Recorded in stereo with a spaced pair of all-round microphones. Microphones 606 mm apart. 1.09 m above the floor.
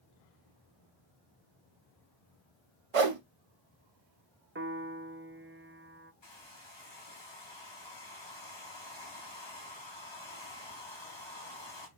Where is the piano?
20° right (ahead or behind), 0.6 m.